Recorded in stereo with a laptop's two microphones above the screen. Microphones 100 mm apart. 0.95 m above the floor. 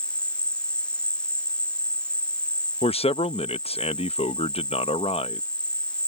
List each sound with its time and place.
0.0 s an insect: 10° left (ahead or behind)
2.8 s a man speaking: 70° left (ahead or behind)